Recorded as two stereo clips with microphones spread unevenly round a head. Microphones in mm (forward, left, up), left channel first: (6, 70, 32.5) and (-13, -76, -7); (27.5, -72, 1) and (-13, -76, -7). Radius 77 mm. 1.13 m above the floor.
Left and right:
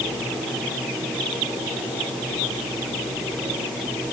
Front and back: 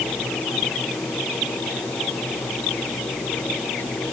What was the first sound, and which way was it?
Only background noise.